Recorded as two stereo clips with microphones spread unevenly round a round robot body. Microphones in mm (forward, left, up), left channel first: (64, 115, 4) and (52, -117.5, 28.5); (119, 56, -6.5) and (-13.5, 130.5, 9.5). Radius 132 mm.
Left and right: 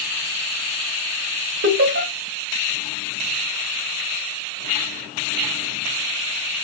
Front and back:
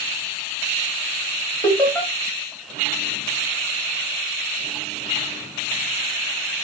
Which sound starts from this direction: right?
Laughter, at 1.6 s.